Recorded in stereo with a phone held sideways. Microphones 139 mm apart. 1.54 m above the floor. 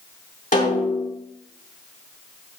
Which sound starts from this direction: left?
A snare drum, at 0.5 s.